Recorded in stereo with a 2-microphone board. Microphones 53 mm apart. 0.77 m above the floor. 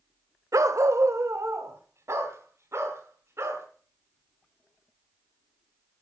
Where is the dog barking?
75° right (ahead or behind), 0.9 m; by 3.6 s 55° right (ahead or behind), 4 m.